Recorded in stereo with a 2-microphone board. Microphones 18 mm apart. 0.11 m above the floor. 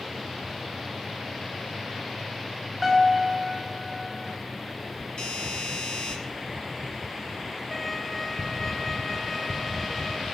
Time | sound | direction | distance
2.8 | a piano | 10° right (ahead or behind) | 8 m
5.2 | a doorbell | 55° left (ahead or behind) | 5 m
7.7 | a violin | 10° left (ahead or behind) | 0.7 m